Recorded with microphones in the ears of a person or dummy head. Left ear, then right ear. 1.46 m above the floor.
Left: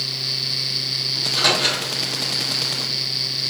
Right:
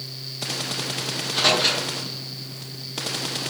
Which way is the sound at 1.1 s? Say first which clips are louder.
Left 1 dB; 5° left (ahead or behind).